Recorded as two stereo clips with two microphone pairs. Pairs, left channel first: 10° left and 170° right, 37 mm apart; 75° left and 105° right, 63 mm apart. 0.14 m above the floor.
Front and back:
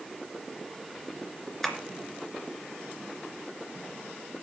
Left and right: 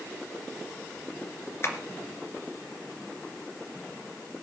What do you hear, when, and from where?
1.6 s tapping: 90° left, 2 m